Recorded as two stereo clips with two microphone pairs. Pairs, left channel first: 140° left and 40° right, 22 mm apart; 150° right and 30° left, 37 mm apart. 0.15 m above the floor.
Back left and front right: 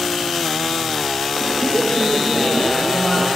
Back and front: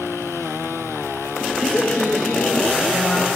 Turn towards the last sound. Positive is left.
turn(degrees=160)